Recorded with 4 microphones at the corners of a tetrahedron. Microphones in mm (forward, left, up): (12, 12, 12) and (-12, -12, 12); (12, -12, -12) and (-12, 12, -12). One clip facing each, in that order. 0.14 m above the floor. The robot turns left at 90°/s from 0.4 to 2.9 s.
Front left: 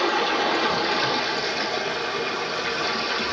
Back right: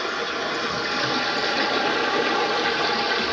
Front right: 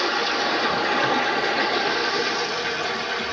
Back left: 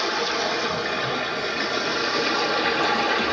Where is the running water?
25° left, 0.9 m; by 3.3 s 160° left, 0.9 m.